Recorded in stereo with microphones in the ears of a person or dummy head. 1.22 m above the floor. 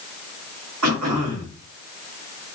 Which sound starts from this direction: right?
Throat clearing, at 0.8 s.